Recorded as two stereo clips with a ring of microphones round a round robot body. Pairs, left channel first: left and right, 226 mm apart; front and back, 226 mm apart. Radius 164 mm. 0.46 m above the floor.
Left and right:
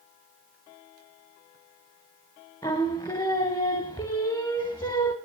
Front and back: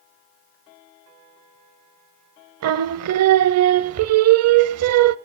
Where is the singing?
170° left, 0.6 m.